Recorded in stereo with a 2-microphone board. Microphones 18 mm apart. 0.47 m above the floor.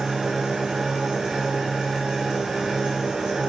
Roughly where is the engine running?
Right.